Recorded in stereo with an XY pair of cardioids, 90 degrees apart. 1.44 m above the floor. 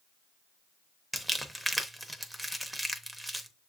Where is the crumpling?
5° right, 0.7 m.